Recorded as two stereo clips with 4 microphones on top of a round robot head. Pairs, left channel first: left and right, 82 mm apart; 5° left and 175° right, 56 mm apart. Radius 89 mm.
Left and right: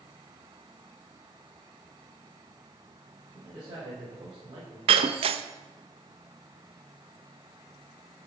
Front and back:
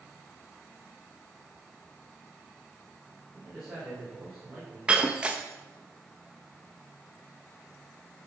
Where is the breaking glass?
100° right, 0.6 m.